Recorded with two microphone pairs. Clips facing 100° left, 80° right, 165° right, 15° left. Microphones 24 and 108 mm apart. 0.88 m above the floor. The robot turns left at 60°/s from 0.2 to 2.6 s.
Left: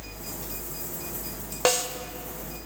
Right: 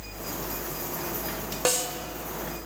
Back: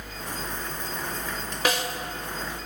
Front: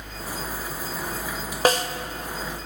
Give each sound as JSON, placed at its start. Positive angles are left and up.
{"t": 1.6, "sound": "a snare drum", "azimuth_deg": 40, "distance_m": 0.7}